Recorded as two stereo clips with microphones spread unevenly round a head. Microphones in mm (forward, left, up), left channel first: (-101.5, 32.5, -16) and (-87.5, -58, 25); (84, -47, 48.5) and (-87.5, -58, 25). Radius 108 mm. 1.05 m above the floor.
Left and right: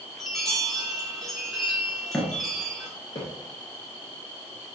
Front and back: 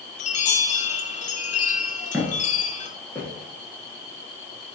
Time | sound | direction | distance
0.2 | a chime | 45° left | 0.5 m
2.1 | footsteps | 95° right | 1.0 m